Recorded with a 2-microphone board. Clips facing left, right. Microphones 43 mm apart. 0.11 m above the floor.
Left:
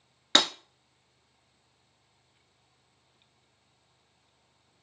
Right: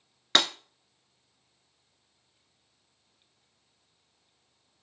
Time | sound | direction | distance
0.3 | breaking glass | centre (ahead or behind) | 1.0 m